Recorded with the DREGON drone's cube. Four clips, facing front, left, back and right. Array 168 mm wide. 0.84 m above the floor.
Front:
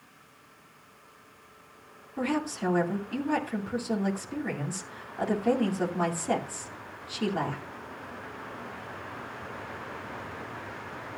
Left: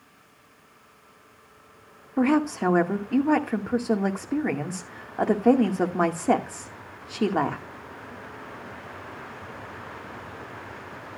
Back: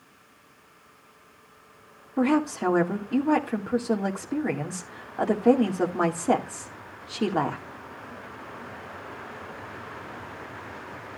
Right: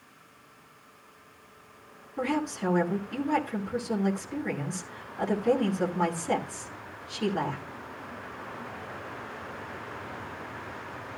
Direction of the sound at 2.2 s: 120° left.